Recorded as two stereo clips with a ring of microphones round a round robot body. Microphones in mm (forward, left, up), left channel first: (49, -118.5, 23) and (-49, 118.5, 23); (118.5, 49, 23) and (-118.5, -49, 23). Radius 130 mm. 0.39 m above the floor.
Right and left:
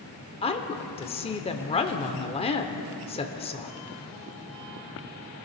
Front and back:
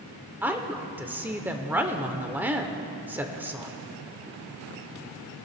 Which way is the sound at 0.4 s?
85° right.